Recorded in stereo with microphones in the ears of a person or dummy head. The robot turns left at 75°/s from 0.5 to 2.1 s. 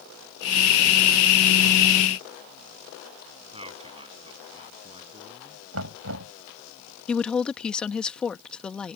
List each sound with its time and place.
3.5 s a man speaking: 30° right (ahead or behind)
5.7 s knocking: 80° right
7.1 s a woman speaking: 5° left (ahead or behind)